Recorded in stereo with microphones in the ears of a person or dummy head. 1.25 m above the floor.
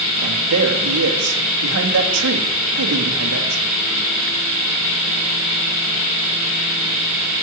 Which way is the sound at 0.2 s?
85° right.